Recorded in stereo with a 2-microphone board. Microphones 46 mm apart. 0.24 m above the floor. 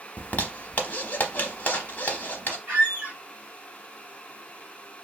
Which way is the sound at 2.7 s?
35° right (ahead or behind).